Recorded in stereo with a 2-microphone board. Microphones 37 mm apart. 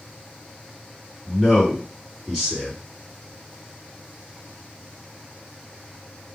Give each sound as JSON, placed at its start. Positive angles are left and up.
{"t": 1.3, "sound": "a man speaking", "side_deg": 5, "distance_m": 2.0}